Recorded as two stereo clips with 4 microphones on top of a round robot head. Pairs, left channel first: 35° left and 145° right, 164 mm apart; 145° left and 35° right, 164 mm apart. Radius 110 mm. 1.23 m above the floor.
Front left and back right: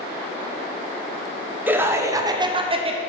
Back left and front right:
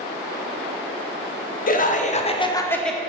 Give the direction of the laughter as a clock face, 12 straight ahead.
7 o'clock.